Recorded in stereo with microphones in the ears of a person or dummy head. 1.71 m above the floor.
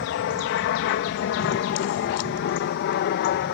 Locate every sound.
0.0 s an aircraft: 60° left (ahead or behind); by 3.5 s 55° left (ahead or behind)